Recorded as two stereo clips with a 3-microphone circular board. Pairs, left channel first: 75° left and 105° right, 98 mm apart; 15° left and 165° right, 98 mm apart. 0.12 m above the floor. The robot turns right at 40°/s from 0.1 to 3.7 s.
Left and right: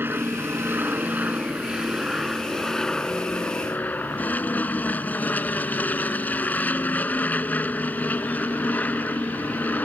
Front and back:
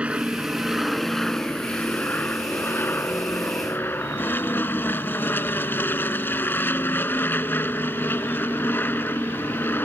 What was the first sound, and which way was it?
An aircraft, 110° right.